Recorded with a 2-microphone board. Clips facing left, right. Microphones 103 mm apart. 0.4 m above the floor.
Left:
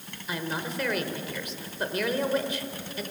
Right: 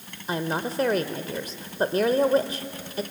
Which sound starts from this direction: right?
A woman speaking, at 0.3 s.